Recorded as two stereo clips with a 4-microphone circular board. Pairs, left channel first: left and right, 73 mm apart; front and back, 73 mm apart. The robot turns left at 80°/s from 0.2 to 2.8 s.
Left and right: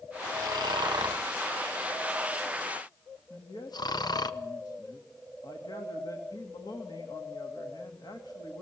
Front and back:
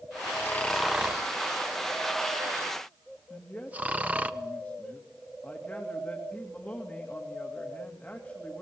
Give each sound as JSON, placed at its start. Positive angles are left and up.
{"t": 0.3, "sound": "snoring", "azimuth_deg": -50, "distance_m": 1.2}
{"t": 3.3, "sound": "a man speaking", "azimuth_deg": 75, "distance_m": 2.5}